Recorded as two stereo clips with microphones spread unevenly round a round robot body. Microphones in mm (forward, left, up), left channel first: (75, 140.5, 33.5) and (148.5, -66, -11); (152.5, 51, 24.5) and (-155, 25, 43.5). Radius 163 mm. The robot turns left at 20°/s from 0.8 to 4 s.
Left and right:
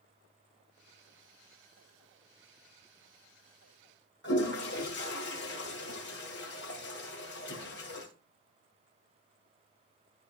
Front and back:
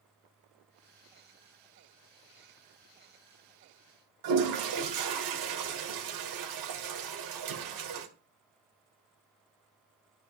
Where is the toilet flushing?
170° left, 1.8 m.